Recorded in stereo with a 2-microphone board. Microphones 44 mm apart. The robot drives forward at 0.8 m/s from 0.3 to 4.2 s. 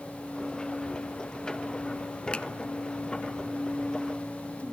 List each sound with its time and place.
2.3 s a finger snap: 25° left (ahead or behind), 0.9 m